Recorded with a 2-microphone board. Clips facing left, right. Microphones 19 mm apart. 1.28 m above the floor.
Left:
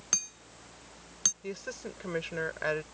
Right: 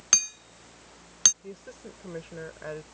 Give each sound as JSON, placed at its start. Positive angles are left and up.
{"t": 0.1, "sound": "hammering", "side_deg": -40}
{"t": 1.4, "sound": "a woman speaking", "side_deg": 60}